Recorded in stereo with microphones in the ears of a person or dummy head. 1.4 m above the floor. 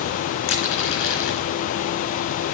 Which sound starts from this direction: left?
Crushing, at 0.5 s.